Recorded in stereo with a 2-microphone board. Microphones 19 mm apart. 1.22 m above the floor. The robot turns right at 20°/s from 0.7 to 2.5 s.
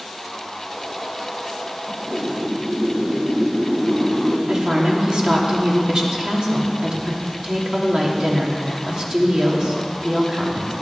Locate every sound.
1.9 s a whoosh: 75° right (ahead or behind), 6 m; by 4.4 s 65° right (ahead or behind), 6 m
4.5 s a woman speaking: 45° right (ahead or behind), 3 m